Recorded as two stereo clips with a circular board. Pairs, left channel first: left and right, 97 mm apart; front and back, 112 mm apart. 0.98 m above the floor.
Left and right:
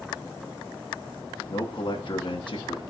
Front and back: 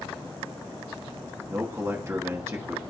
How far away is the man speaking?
About 1.3 m.